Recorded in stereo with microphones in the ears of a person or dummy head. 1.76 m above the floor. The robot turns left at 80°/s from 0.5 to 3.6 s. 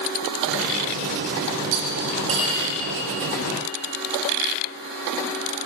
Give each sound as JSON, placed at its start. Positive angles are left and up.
{"t": 1.7, "sound": "cutlery clinking", "side_deg": -70, "distance_m": 2.5}